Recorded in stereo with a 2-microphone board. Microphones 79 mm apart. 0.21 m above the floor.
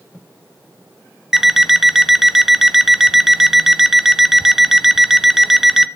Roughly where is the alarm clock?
Centre.